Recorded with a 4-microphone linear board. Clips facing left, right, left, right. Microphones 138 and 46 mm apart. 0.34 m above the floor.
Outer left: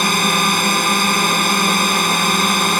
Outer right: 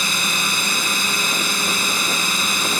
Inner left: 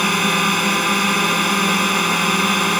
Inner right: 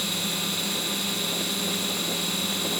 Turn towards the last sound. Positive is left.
turn(degrees=60)  # may be behind; listen again after turning